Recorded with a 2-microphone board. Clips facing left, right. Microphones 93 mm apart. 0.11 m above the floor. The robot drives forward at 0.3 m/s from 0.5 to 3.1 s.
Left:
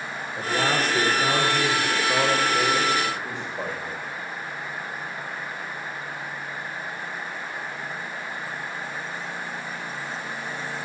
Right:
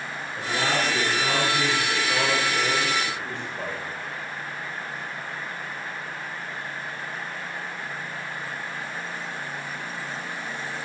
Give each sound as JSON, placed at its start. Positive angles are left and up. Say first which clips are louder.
{"t": 0.4, "sound": "a man speaking", "louder": "left 2 dB", "side_deg": 15, "distance_m": 8.5}